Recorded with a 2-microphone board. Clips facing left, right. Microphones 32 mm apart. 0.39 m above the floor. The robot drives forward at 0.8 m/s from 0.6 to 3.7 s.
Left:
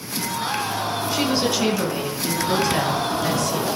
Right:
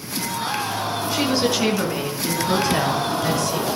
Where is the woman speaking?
Centre (ahead or behind), 4 m.